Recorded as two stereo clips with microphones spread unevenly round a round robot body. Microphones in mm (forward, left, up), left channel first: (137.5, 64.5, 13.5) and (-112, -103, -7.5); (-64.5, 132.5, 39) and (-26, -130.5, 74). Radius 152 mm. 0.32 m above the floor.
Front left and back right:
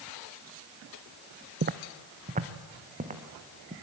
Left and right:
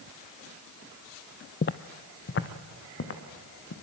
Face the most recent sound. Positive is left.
turn(degrees=145)